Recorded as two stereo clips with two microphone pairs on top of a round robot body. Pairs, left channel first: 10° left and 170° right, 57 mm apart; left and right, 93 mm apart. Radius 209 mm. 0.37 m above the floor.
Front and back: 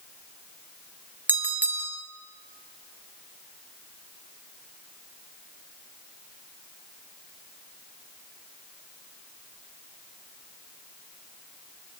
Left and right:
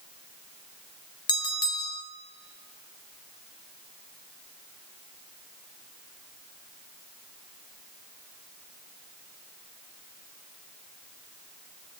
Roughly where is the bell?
Behind left.